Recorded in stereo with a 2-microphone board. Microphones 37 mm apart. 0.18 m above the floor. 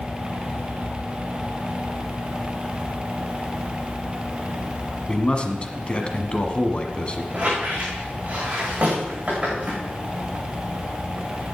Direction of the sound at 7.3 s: 30° right (ahead or behind).